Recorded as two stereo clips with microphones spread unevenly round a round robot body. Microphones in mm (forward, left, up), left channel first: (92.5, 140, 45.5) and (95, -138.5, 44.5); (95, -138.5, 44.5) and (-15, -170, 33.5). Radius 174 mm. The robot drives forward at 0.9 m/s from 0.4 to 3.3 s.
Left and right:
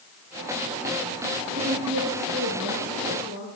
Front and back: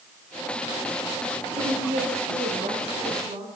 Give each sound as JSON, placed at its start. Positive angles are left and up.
{"t": 1.5, "sound": "a woman speaking", "azimuth_deg": -145, "distance_m": 3.0}